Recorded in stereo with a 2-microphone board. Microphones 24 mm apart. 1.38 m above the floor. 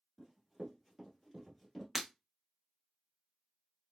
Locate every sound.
0.2 s running footsteps: 20° right (ahead or behind), 1.4 m; by 1.9 s 10° right (ahead or behind), 1.4 m
1.9 s breaking glass: 15° right (ahead or behind), 0.6 m